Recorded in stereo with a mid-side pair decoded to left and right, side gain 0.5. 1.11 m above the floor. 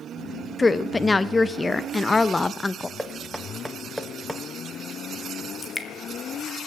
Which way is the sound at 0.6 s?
20° left.